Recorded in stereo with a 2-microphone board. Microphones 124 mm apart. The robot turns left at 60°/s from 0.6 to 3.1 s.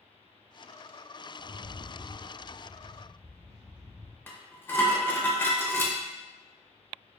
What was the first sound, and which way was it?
A rattle, 5° left.